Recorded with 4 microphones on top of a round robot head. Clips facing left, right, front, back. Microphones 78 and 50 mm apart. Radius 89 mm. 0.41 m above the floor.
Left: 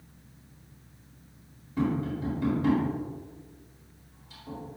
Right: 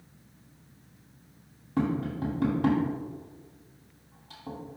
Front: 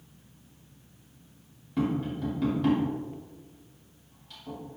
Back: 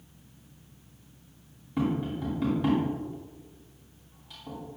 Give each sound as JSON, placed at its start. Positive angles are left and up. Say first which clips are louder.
{"t": 1.8, "sound": "tapping", "louder": "even, even", "azimuth_deg": -100, "distance_m": 3.0}